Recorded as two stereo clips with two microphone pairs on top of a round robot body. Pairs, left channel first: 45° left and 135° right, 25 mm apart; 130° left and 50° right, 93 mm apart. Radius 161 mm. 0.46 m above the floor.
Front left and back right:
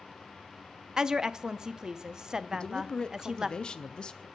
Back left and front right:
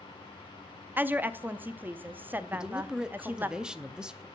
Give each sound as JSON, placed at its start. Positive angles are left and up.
{"t": 1.0, "sound": "a woman speaking", "azimuth_deg": -125, "distance_m": 0.8}
{"t": 2.5, "sound": "a man speaking", "azimuth_deg": 40, "distance_m": 0.7}